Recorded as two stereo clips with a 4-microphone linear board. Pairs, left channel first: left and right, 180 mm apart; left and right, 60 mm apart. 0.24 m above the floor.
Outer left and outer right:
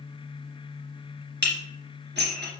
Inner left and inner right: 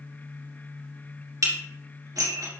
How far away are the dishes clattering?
About 2 m.